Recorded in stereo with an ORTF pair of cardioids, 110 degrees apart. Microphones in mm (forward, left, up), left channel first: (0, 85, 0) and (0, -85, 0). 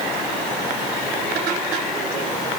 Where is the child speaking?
No child speaking in this recording.